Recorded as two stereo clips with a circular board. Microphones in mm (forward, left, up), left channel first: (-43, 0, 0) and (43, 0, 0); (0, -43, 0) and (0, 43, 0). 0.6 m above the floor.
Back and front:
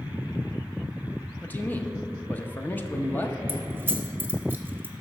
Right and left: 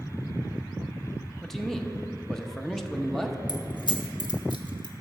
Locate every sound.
1.4 s a man speaking: 170° right, 0.7 m
3.5 s keys jangling: 65° right, 0.9 m